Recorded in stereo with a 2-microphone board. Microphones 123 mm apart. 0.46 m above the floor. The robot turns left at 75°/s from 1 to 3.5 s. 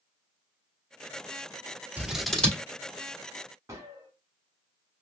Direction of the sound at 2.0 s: 10° right (ahead or behind).